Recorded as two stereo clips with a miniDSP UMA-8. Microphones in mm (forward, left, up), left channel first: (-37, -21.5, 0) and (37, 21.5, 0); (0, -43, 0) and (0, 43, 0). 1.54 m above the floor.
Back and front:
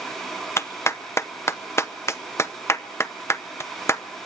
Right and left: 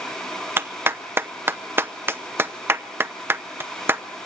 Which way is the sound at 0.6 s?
155° left.